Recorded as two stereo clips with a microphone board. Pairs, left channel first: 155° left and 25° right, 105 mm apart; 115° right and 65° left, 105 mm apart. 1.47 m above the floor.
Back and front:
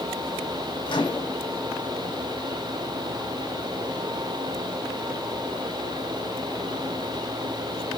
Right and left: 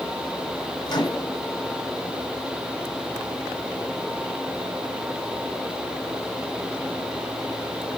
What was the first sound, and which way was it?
A microwave, 160° right.